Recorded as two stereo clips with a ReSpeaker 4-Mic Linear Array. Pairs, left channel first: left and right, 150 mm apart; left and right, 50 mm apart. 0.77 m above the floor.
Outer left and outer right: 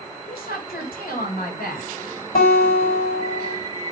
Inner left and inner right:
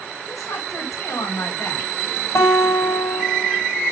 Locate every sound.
0.2 s a woman speaking: 75° left (ahead or behind), 3.5 m
2.4 s a guitar: 65° left (ahead or behind), 4 m